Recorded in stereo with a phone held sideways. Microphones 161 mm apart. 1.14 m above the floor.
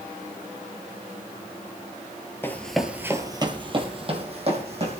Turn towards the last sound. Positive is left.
turn(degrees=-45)  # may be behind; listen again after turning